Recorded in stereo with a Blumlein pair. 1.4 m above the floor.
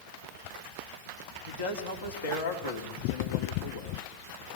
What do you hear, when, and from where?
1.5 s a man speaking: 70° left, 3 m